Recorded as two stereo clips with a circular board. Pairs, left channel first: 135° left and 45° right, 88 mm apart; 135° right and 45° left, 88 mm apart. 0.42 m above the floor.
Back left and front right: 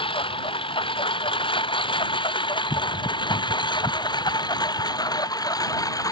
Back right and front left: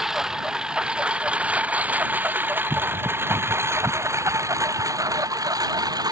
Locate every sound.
0.0 s a lawn mower: 130° left; by 6.1 s 90° left